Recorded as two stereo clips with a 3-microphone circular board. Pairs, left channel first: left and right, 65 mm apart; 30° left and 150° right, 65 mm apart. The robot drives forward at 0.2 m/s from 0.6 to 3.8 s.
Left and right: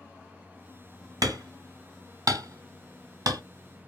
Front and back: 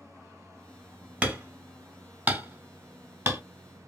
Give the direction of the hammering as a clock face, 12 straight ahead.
3 o'clock.